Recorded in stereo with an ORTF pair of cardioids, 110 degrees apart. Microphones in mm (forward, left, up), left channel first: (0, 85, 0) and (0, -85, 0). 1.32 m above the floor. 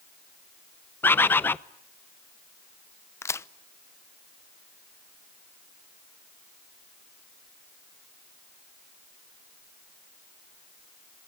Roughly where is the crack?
Ahead.